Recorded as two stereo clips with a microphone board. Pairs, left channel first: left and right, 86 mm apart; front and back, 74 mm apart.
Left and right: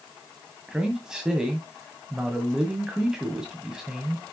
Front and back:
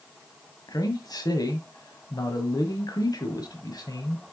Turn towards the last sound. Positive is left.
turn(degrees=-10)